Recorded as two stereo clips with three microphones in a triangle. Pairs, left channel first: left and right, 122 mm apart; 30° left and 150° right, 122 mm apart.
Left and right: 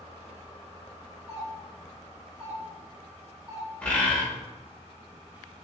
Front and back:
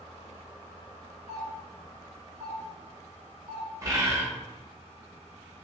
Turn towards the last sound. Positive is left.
turn(degrees=165)